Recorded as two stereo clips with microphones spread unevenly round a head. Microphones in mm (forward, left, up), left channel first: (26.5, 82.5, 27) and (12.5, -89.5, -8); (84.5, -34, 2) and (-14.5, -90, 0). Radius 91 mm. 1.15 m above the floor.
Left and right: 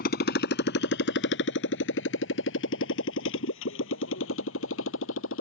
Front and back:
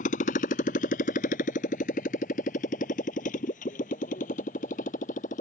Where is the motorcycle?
55° left; by 5.4 s 80° left.